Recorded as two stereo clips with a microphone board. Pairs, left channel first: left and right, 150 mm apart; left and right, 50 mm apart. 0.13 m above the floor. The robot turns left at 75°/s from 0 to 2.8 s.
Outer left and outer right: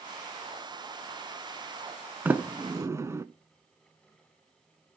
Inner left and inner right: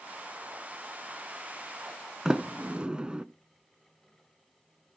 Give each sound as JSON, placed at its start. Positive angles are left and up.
{"t": 2.2, "sound": "a sliding door", "side_deg": -15, "distance_m": 0.5}